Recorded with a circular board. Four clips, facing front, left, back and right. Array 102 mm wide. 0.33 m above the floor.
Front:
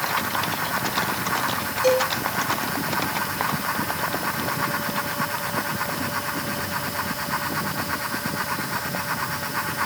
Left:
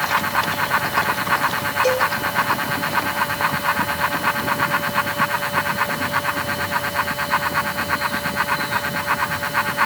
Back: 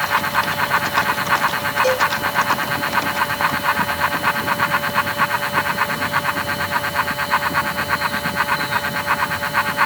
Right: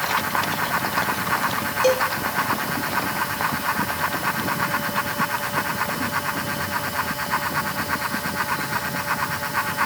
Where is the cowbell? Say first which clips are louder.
Even, even; 100° right, 5 m.